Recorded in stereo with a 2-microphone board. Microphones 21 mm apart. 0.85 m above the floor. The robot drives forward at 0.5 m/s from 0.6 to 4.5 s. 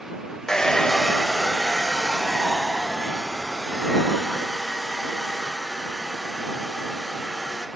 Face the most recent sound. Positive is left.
turn(degrees=5)  # may be behind; listen again after turning